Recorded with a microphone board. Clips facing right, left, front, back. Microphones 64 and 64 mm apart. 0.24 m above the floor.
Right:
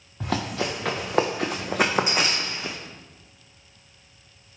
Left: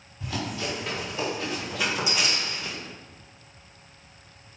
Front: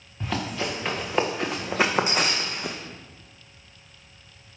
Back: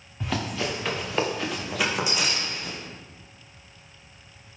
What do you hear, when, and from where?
0.2 s running footsteps: 90° right, 1.9 m; by 2.8 s 25° right, 1.1 m